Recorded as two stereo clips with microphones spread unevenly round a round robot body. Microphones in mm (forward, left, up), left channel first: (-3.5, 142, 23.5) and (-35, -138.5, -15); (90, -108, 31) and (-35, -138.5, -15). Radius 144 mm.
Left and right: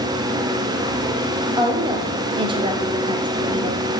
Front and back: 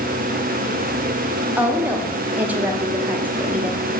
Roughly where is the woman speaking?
Behind right.